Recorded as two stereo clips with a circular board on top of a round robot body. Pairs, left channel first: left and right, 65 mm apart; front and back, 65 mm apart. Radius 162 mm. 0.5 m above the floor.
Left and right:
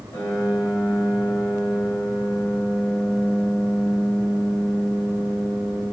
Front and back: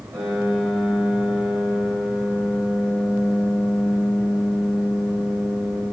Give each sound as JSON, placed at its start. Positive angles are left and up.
{"t": 0.1, "sound": "a piano", "azimuth_deg": 130, "distance_m": 2.5}